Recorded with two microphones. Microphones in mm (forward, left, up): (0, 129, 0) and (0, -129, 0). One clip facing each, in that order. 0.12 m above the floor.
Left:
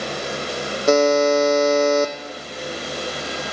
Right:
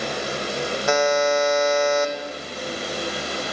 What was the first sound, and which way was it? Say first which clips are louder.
A buzzer: left 6 dB; 45° left (ahead or behind).